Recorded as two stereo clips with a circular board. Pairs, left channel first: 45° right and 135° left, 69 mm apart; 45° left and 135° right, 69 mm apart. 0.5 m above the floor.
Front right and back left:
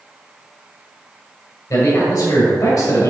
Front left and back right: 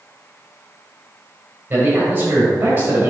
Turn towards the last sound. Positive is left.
turn(degrees=-75)